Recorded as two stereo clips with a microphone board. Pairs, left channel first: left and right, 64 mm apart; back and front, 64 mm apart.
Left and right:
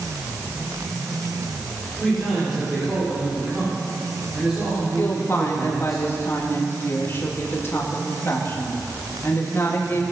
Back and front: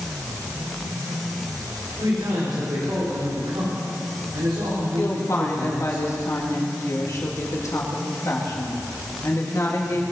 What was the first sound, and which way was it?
A man speaking, 5° right.